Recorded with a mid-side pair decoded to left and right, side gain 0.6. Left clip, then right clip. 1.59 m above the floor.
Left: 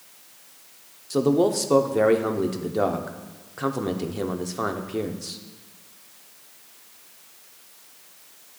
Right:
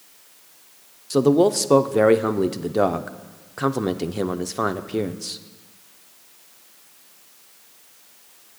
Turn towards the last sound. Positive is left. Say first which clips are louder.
# right 4 dB
turn(degrees=-30)